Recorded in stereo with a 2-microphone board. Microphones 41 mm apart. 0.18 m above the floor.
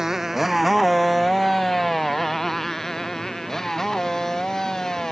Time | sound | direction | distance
0.0 | a motorcycle | 10° right (ahead or behind) | ?